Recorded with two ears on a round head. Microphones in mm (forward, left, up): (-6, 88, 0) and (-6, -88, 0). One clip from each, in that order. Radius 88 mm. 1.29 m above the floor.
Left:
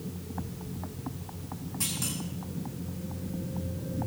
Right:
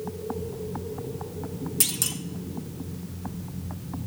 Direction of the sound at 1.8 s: 65° right (ahead or behind).